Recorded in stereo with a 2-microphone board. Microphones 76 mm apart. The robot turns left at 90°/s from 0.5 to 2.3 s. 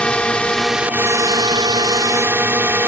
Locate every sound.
0.0 s a drone: 15° left; by 2.9 s 150° right